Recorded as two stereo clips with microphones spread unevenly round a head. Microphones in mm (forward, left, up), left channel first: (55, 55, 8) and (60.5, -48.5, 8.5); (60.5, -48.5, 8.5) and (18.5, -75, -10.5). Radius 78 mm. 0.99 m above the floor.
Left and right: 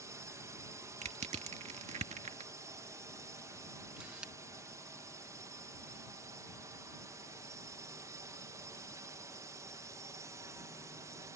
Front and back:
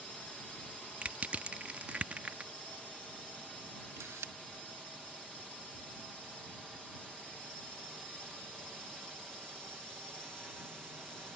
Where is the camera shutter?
170° right.